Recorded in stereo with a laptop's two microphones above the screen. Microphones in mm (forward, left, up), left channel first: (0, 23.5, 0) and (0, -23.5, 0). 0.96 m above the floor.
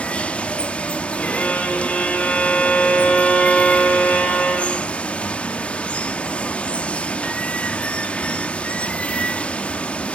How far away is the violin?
About 5 m.